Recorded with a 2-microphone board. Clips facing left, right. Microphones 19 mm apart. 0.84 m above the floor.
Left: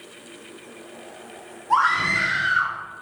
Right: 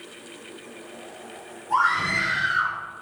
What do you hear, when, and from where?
1.7 s a scream: 45° left (ahead or behind), 2.0 m; by 2.8 s 35° left (ahead or behind), 2.5 m